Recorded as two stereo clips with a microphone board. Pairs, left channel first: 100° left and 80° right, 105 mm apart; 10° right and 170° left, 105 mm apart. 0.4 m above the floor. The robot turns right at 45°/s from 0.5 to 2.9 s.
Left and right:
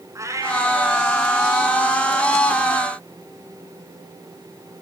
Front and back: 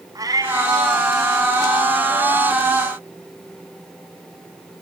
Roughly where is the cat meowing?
Behind right.